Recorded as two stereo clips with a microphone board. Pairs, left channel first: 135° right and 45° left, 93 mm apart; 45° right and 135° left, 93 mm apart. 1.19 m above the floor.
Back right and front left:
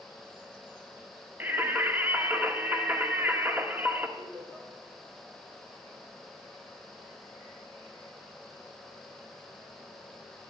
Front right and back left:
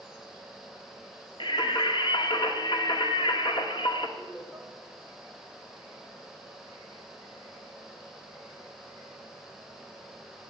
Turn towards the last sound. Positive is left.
turn(degrees=30)